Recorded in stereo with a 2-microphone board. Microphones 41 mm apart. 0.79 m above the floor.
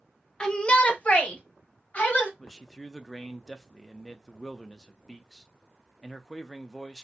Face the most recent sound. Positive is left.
turn(degrees=10)  # may be behind; listen again after turning